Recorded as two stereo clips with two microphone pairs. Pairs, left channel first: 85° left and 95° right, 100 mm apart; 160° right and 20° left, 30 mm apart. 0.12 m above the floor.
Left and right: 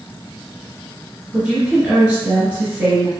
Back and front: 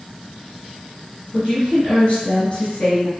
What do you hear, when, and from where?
1.3 s a woman speaking: 160° right, 1.9 m